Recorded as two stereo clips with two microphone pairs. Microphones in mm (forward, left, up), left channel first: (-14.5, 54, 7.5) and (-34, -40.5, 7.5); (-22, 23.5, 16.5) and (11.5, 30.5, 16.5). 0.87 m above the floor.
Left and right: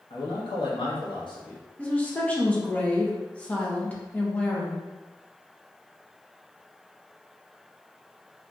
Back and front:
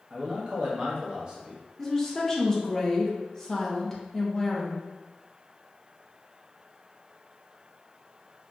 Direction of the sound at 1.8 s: 135° left.